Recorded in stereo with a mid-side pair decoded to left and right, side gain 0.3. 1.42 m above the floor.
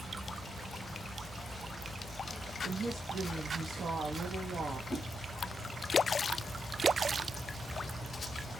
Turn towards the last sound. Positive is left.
turn(degrees=45)